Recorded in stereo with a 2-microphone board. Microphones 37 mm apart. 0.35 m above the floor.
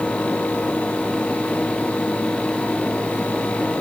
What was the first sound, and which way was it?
Only background noise.